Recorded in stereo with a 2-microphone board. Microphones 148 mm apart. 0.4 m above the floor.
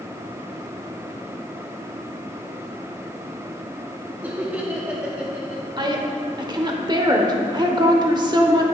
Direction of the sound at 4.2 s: 10° right (ahead or behind).